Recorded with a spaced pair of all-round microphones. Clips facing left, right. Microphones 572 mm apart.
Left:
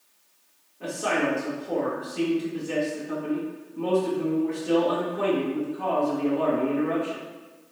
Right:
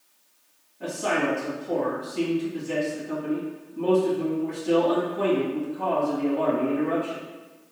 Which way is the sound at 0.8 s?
15° right (ahead or behind).